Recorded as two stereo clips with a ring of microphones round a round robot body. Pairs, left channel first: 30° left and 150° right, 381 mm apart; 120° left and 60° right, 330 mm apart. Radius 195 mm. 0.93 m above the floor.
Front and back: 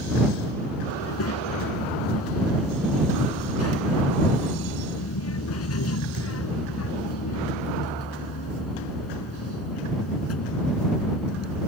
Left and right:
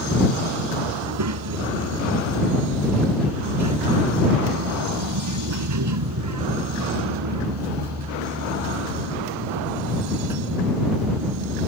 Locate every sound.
1.0 s a child speaking: 25° right